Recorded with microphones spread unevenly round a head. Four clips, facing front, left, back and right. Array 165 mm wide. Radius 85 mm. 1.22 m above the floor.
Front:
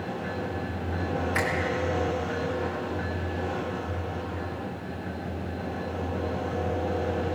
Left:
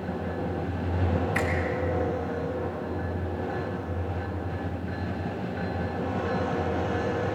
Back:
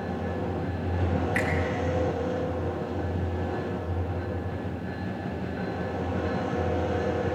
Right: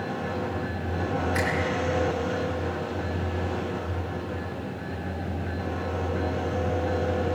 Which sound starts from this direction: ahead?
A finger snap, at 1.4 s.